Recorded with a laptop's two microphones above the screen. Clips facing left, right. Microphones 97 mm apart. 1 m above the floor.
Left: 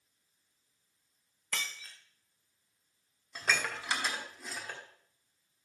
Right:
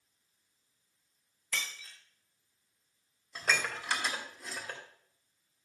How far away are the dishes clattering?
About 1.9 m.